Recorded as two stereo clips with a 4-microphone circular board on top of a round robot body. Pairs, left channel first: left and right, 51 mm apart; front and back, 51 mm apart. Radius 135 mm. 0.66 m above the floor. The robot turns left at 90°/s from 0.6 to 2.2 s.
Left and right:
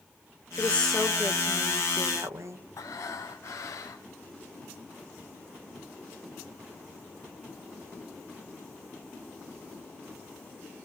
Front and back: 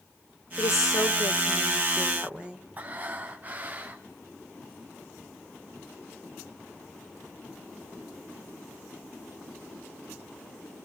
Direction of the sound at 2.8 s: 120° left.